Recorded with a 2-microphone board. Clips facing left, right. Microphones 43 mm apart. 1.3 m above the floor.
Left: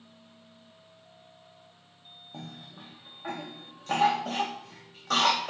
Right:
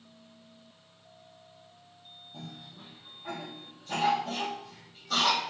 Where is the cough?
60° left (ahead or behind), 0.6 m.